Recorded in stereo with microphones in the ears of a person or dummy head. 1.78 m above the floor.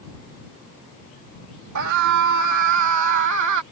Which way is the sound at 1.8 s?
75° right (ahead or behind).